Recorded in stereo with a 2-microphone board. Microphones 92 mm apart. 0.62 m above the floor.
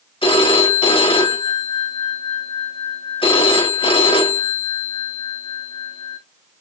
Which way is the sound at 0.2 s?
85° left.